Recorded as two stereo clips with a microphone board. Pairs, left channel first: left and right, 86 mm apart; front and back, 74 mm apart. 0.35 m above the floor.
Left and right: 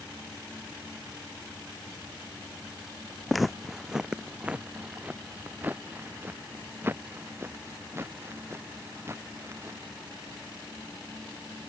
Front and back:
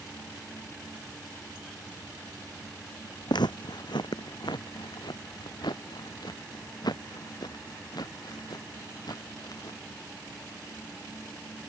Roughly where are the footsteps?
Ahead.